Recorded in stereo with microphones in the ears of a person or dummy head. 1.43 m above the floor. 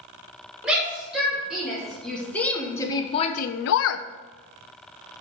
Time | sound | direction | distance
0.6 | a shout | 5° right (ahead or behind) | 2.5 m